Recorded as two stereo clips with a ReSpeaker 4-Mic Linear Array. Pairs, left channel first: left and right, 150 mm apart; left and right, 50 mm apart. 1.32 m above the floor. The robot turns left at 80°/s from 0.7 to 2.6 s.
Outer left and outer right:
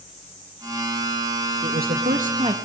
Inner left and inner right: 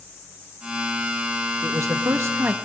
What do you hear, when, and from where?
1.6 s a man speaking: 70° right, 1.9 m; by 2.5 s 140° right, 1.9 m